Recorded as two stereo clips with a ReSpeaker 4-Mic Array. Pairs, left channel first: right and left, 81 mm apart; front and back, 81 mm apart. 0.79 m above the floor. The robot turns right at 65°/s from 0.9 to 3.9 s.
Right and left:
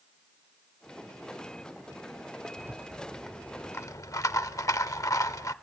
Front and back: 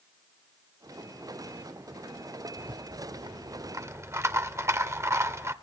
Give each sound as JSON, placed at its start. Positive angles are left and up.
{"t": 2.6, "sound": "a rattle", "azimuth_deg": 140, "distance_m": 0.7}